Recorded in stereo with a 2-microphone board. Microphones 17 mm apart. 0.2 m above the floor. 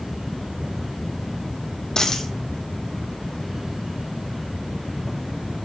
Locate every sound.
2.0 s a dropped coin: 30° left (ahead or behind), 1.9 m